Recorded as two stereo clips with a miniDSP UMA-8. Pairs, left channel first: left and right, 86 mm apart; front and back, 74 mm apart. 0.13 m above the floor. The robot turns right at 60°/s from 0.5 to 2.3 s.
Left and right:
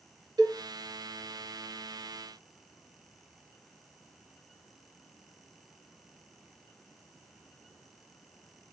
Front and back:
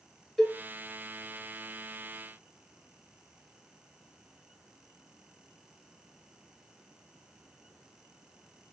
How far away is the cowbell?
About 0.9 m.